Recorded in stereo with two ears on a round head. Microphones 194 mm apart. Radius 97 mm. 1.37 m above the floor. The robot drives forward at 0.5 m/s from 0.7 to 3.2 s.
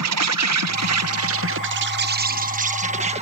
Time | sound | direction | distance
0.0 | an insect | 85° right | ?